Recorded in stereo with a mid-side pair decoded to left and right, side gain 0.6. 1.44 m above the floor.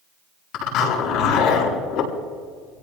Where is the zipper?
65° left, 7.5 m.